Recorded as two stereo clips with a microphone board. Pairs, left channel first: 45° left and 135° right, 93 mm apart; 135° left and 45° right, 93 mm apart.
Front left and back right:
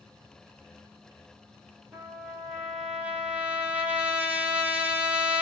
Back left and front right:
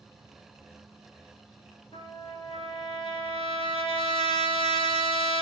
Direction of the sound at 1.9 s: 150° left.